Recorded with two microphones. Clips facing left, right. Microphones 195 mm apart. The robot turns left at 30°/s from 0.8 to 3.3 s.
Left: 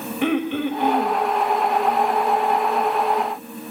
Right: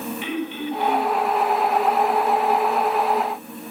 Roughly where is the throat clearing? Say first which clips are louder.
Left 9 dB; left.